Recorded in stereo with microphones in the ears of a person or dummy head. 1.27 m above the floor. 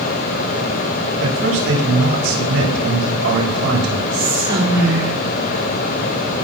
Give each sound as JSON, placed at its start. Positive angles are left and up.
{"t": 1.2, "sound": "a man speaking", "side_deg": -85, "distance_m": 7.5}
{"t": 4.1, "sound": "whispering", "side_deg": -60, "distance_m": 4.0}